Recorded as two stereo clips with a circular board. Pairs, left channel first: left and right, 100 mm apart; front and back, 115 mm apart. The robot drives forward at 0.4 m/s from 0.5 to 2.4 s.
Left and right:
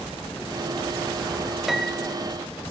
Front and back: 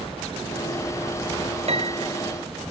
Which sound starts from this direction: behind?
A piano, at 1.7 s.